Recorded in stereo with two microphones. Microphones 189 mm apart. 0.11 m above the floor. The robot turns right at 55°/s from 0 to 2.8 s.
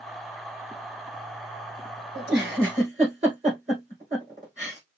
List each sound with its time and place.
2.1 s a giggle: 70° right (ahead or behind), 4.5 m; by 4.8 s 40° right (ahead or behind), 4.5 m